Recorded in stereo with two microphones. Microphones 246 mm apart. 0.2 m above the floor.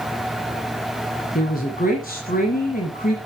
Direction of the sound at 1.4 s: 35° left (ahead or behind).